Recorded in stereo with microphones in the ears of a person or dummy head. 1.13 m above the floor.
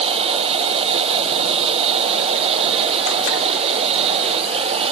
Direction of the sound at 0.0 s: 30° right (ahead or behind).